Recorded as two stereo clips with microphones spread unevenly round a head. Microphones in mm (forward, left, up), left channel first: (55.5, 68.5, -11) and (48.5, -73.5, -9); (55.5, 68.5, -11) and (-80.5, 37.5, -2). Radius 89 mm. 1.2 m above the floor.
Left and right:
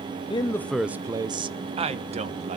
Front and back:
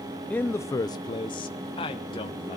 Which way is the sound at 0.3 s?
80° left.